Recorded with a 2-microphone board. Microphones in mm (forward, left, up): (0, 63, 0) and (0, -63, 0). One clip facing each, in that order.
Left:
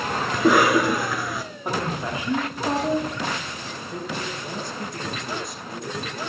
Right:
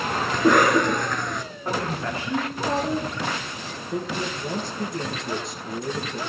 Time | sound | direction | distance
0.3 | a cough | 5° left (ahead or behind) | 1.1 m
1.6 | a woman speaking | 15° left (ahead or behind) | 6.5 m
3.9 | a man speaking | 25° right (ahead or behind) | 2 m